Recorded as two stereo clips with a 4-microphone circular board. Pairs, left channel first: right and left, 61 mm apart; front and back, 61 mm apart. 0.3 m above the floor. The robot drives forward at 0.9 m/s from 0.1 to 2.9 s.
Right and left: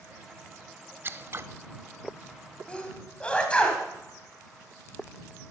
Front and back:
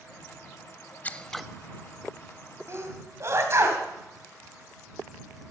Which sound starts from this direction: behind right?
A sneeze, at 2.7 s.